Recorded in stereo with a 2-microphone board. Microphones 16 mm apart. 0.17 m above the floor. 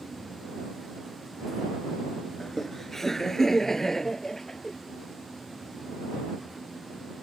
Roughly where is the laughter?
Left.